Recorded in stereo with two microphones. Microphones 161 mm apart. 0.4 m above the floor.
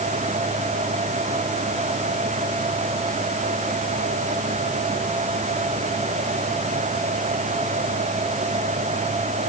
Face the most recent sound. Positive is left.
No sound to turn to.